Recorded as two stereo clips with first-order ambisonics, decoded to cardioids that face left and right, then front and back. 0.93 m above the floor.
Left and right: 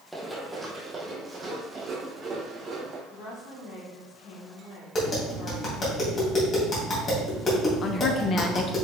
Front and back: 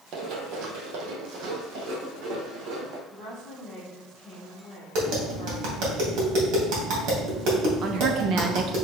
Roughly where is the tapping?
Behind left.